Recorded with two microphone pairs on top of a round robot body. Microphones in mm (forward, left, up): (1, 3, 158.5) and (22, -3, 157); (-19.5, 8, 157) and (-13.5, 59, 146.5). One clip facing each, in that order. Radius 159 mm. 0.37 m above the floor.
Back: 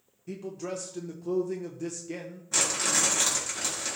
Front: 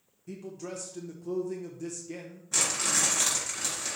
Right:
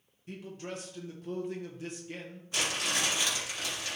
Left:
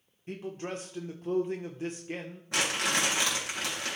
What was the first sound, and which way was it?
A man speaking, 90° left.